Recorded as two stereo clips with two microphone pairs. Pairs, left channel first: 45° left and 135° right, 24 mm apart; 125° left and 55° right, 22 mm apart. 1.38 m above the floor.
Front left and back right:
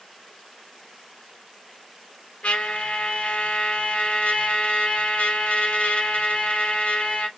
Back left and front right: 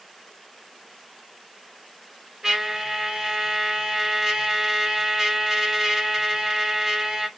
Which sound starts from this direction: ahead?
A trumpet, at 2.4 s.